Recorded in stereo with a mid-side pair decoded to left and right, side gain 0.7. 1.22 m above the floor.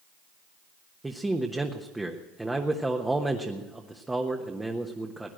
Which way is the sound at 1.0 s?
10° right.